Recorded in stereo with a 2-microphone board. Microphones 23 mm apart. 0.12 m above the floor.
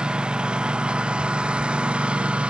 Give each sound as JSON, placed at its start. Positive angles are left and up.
{"t": 0.0, "sound": "a lawn mower", "side_deg": -40}